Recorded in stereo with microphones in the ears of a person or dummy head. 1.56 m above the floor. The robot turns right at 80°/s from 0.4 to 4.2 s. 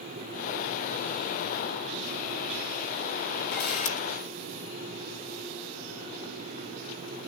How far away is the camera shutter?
About 2.5 m.